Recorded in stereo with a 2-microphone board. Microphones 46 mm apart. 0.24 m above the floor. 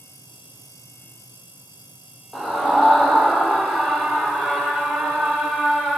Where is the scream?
Centre (ahead or behind), 9.5 m.